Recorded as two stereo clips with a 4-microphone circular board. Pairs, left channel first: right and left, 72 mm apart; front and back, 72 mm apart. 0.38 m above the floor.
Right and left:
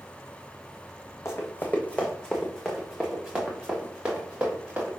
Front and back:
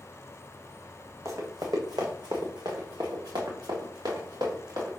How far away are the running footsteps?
About 1.1 m.